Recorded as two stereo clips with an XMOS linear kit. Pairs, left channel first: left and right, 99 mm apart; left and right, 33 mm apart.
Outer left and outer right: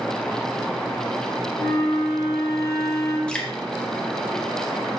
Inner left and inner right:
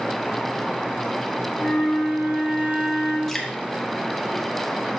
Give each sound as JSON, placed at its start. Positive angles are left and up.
{"t": 1.6, "sound": "a flute", "side_deg": -80, "distance_m": 5.0}
{"t": 3.3, "sound": "dripping", "side_deg": 10, "distance_m": 1.7}